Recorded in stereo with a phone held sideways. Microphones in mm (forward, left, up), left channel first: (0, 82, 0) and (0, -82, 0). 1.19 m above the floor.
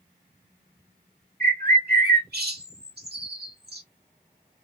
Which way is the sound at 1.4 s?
75° right (ahead or behind).